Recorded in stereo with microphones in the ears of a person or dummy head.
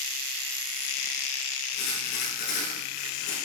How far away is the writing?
About 8.5 m.